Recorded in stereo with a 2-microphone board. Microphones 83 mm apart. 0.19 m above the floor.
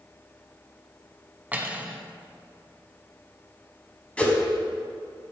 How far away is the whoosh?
About 1.3 m.